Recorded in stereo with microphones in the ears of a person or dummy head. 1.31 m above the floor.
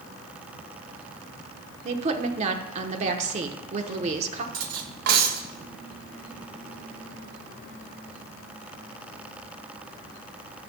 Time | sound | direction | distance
1.9 | a woman speaking | 45° right (ahead or behind) | 1.0 m
4.5 | cutlery clinking | 60° right (ahead or behind) | 0.8 m